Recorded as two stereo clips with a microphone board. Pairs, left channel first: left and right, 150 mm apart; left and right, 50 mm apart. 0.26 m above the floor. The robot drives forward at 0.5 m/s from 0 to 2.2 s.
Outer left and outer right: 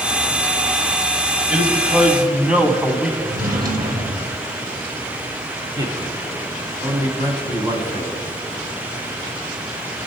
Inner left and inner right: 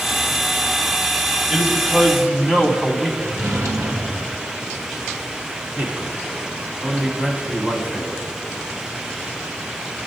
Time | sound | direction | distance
1.5 | a man speaking | 10° right (ahead or behind) | 1.1 m
3.2 | a drawer | 75° right (ahead or behind) | 2.5 m
5.8 | a man speaking | 25° right (ahead or behind) | 1.9 m